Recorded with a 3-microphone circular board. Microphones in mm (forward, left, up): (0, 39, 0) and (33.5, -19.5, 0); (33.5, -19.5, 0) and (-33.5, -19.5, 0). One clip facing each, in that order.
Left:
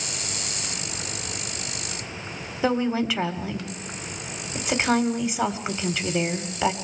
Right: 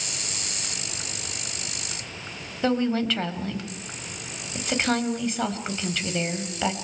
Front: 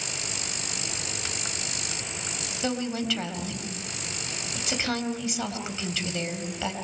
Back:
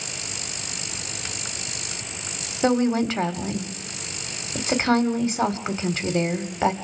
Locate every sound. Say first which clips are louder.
2.6 s a woman speaking: even, back 9 dB; 165° right, 1.5 m